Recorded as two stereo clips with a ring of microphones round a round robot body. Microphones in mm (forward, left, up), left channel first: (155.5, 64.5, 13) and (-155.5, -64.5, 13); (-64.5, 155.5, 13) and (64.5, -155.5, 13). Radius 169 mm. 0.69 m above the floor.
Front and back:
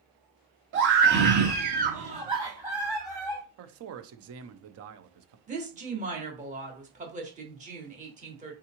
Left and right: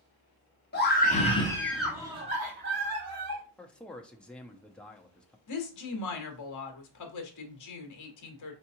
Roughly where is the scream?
Behind.